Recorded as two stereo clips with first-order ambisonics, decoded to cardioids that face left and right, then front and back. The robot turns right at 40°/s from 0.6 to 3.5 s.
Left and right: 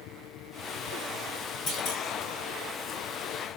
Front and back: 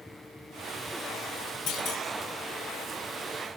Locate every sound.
1.7 s a clunk: 35° left, 5.5 m; by 2.0 s 50° left, 5.5 m